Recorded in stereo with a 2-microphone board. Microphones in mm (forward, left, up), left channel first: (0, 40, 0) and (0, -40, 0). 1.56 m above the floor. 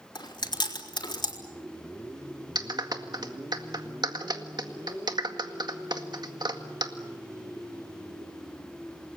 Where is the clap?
60° right (ahead or behind), 1.9 m.